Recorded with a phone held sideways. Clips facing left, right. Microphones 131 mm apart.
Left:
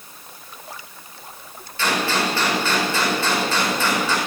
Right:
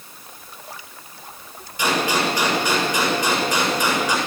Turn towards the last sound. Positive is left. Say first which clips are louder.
# right 1 dB
turn(degrees=-15)  # may be behind; listen again after turning